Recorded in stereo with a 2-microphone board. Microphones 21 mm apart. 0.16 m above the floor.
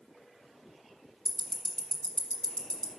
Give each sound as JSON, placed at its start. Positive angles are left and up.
{"t": 1.2, "sound": "ticking", "side_deg": 35, "distance_m": 1.2}